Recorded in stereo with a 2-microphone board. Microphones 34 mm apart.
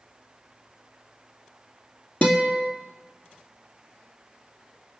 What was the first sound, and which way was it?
A guitar, 45° left (ahead or behind).